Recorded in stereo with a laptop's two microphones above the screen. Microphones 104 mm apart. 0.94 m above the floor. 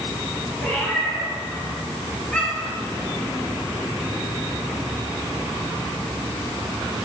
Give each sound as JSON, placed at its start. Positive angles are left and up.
{"t": 0.6, "sound": "a cat meowing", "side_deg": 0, "distance_m": 3.5}